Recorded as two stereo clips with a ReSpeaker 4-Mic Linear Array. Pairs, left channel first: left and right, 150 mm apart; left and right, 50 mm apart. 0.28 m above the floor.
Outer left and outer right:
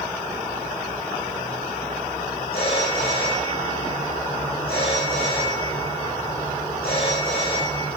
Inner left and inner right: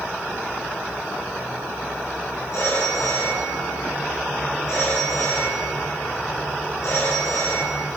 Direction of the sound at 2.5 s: 80° left.